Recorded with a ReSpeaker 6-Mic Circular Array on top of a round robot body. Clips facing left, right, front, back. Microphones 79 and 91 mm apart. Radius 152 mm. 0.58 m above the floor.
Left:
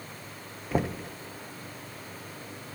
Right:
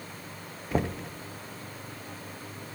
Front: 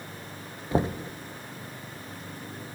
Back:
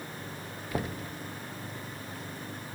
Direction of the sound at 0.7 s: 5° left.